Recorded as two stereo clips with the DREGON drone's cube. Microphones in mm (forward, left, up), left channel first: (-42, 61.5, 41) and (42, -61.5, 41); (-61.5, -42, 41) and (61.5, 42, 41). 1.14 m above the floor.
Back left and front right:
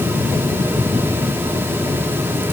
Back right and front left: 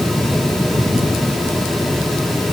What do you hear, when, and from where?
Only background noise.